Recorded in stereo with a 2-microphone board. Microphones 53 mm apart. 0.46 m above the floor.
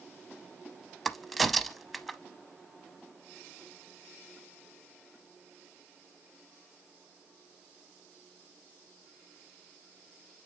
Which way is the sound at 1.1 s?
Centre (ahead or behind).